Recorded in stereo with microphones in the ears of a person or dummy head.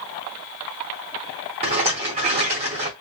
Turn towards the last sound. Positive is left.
turn(degrees=-30)  # may be behind; listen again after turning